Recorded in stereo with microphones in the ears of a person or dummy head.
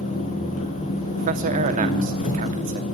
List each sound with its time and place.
0.0 s an engine running: 40° left (ahead or behind), 5 m
1.2 s a man speaking: 45° right (ahead or behind), 2.5 m